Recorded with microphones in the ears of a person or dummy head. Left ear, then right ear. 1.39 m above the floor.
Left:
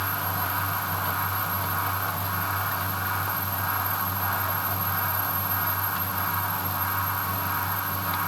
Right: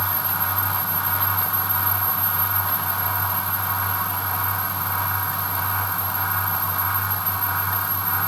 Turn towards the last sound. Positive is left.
No sound to turn to.